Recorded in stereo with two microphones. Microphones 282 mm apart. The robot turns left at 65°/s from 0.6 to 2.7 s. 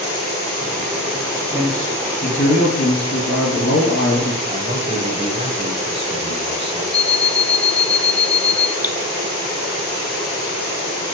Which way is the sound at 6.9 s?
20° left (ahead or behind).